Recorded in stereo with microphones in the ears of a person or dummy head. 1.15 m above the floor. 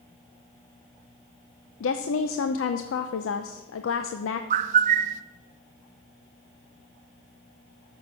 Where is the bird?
45° right (ahead or behind), 0.7 m.